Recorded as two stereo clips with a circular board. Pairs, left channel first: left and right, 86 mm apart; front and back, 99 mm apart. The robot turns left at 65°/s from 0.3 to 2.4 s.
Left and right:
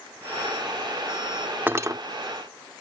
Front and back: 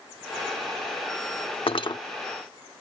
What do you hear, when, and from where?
1.7 s cutlery clinking: 25° right; by 2.0 s 45° right